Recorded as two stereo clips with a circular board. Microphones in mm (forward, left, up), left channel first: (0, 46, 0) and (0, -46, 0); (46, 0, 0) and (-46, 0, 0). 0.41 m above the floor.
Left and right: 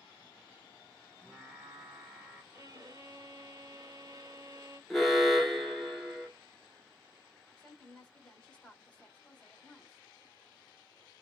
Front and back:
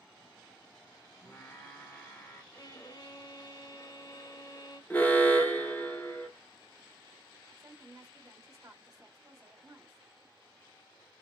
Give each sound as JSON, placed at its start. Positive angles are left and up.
{"t": 1.2, "sound": "singing", "azimuth_deg": -25, "distance_m": 1.1}
{"t": 2.5, "sound": "a violin", "azimuth_deg": -45, "distance_m": 0.6}
{"t": 4.9, "sound": "an alarm", "azimuth_deg": 5, "distance_m": 0.9}
{"t": 7.6, "sound": "a woman speaking", "azimuth_deg": 160, "distance_m": 1.4}